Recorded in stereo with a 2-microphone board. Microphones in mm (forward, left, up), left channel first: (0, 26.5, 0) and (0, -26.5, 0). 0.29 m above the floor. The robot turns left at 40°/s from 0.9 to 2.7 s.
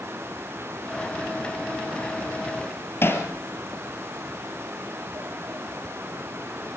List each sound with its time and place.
3.0 s hammering: 45° left (ahead or behind), 3.5 m